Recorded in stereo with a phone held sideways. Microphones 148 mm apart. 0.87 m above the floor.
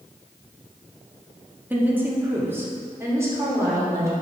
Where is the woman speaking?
15° right (ahead or behind), 1.6 m; by 4.1 s 20° right (ahead or behind), 3 m.